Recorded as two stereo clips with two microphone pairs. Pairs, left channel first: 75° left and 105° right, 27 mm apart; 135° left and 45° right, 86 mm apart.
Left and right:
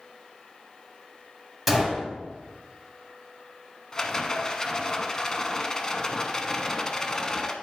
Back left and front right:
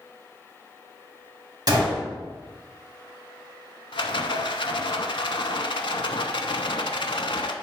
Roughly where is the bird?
No bird in this recording.